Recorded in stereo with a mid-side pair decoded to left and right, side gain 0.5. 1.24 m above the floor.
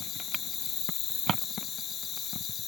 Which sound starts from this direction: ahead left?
An insect, at 0.0 s.